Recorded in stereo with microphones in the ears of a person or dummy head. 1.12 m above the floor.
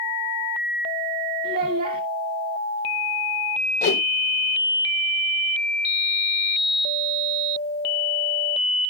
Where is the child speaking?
45° right (ahead or behind), 1.7 m.